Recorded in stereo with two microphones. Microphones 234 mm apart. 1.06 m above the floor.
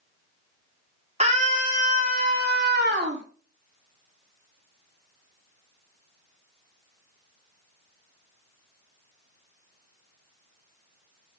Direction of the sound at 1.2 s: 30° right (ahead or behind).